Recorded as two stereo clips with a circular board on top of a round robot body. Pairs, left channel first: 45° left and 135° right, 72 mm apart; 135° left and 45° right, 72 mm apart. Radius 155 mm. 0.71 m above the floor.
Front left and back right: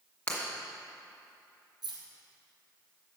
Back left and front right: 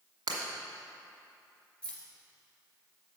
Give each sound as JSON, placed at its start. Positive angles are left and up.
{"t": 0.3, "sound": "breaking glass", "azimuth_deg": -25, "distance_m": 1.7}
{"t": 1.8, "sound": "keys jangling", "azimuth_deg": -145, "distance_m": 1.8}